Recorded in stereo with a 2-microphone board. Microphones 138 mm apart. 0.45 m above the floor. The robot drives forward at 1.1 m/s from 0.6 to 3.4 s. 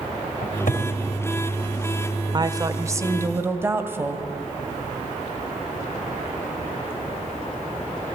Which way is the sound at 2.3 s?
35° right (ahead or behind).